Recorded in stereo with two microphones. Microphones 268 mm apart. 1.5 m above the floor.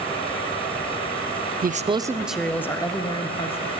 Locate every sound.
1.6 s a man speaking: 35° right (ahead or behind), 0.5 m; by 3.7 s 20° left (ahead or behind), 1.4 m